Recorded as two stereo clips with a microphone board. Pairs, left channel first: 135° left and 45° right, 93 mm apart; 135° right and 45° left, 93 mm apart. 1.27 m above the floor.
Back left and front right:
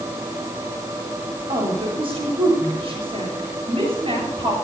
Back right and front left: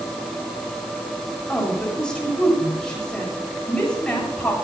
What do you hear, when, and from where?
1.5 s a woman speaking: 55° right, 7.5 m